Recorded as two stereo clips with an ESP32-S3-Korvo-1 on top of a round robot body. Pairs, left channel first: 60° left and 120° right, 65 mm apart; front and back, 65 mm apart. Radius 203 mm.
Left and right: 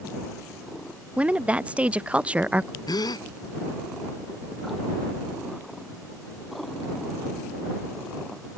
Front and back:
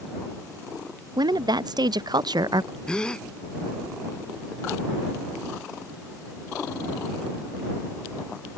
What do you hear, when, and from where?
1.2 s a woman speaking: 165° left
2.9 s a gasp: 80° left